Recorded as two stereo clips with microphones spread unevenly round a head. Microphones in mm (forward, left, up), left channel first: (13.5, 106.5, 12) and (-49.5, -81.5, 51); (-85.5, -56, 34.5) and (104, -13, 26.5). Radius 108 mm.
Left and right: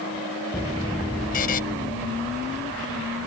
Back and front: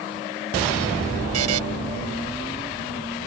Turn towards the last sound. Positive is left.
turn(degrees=15)